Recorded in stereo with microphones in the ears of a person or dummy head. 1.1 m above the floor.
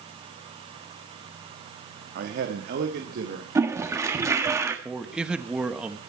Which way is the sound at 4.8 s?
10° right (ahead or behind).